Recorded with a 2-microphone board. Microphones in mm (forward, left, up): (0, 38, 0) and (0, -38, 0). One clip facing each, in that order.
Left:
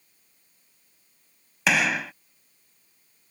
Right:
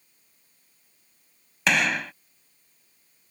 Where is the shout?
No shout in this recording.